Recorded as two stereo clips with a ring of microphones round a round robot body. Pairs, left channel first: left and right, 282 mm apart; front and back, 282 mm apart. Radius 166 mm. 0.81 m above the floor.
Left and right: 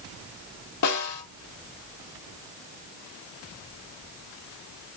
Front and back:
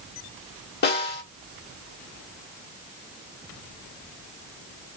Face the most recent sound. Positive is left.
turn(degrees=55)